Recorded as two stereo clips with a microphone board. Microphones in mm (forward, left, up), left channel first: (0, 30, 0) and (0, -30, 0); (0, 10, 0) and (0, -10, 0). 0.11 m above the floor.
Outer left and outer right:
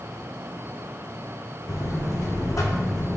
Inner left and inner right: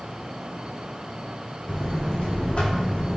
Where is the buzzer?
65° left (ahead or behind), 0.8 m.